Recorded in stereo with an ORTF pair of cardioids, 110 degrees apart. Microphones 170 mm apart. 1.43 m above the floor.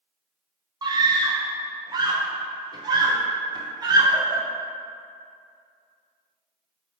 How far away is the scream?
About 0.7 m.